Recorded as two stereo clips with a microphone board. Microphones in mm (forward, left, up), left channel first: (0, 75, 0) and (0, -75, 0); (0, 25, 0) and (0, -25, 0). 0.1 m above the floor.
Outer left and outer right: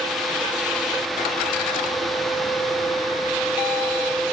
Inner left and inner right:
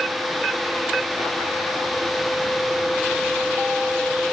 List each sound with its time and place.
Only background noise.